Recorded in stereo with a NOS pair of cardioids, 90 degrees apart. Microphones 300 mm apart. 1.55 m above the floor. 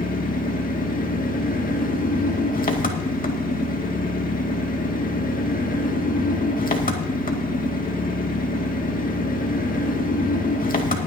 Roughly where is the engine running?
Ahead left.